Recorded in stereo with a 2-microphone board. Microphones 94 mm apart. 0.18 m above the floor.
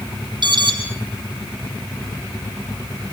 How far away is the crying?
No crying in this recording.